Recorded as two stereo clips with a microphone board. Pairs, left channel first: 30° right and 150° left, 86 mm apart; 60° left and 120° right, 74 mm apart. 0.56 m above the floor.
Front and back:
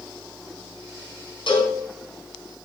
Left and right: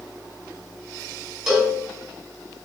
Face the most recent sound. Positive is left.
turn(degrees=-35)